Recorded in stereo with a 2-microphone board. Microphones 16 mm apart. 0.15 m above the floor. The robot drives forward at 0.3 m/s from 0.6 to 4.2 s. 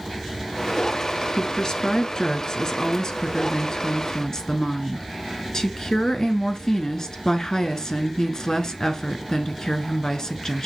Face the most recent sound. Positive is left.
turn(degrees=40)  # may be behind; listen again after turning